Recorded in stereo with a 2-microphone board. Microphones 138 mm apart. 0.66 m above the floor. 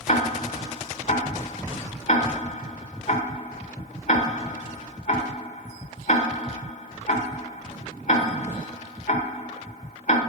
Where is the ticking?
60° left (ahead or behind), 1.1 m.